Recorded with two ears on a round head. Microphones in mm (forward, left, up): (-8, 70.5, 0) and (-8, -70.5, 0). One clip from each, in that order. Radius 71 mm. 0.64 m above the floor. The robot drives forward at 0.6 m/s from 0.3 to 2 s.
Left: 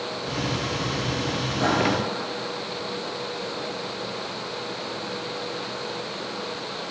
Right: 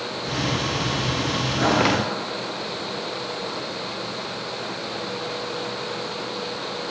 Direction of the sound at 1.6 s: 40° right (ahead or behind).